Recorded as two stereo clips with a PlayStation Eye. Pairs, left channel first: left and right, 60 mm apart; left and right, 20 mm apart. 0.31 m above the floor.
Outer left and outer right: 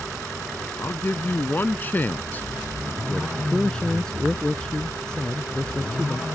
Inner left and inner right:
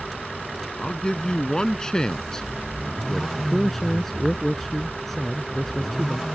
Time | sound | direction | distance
0.8 | a man speaking | 40° left (ahead or behind) | ?
3.4 | a man speaking | 15° left (ahead or behind) | ?